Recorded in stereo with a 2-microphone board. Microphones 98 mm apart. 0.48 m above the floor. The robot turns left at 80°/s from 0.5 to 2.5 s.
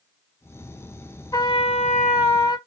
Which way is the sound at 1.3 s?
140° left.